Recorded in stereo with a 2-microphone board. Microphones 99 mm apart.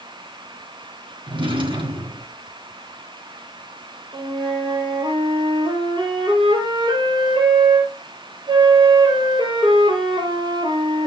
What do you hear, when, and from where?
1.3 s a drawer: 55° right (ahead or behind), 3 m
4.1 s a flute: 55° right (ahead or behind), 4.5 m